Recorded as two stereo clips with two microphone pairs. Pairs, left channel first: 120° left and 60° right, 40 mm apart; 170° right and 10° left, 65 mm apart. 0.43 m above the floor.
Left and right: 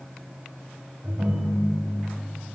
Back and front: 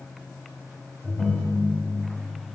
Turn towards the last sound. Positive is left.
turn(degrees=-100)